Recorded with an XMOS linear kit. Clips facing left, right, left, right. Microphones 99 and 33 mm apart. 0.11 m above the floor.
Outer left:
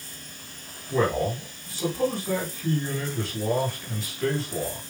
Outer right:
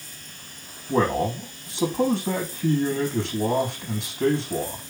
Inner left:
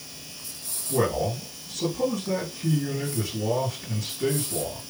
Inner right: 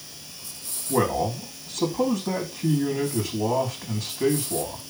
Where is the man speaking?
80° right, 7.5 m.